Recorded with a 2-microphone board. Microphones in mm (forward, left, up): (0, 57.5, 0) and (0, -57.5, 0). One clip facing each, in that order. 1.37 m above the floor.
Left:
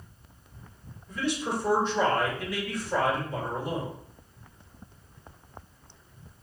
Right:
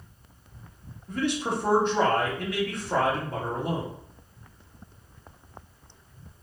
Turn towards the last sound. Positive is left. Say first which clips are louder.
# right 2 dB
turn(degrees=-50)  # may be behind; listen again after turning